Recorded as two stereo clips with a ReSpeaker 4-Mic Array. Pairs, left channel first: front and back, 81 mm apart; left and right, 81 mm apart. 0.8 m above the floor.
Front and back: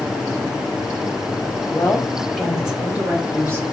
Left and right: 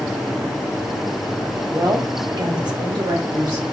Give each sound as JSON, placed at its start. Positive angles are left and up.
{"t": 1.7, "sound": "a woman speaking", "azimuth_deg": -60, "distance_m": 1.0}